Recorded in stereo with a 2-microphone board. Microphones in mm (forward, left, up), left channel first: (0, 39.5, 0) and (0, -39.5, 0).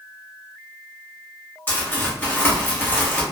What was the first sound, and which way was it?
Crumpling, 25° left (ahead or behind).